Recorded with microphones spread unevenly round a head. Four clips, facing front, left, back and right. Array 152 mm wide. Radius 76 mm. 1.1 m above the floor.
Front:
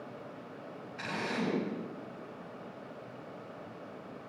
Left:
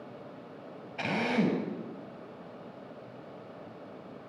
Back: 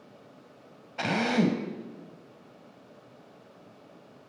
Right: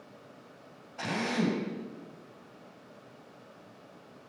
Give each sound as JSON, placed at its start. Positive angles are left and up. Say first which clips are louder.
{"t": 1.0, "sound": "a drill", "louder": "left 2 dB, back 10 dB", "azimuth_deg": 160, "distance_m": 4.0}